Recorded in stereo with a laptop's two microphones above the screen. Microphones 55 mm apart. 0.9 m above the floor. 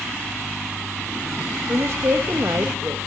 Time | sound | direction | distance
1.7 | a woman speaking | 55° right (ahead or behind) | 0.7 m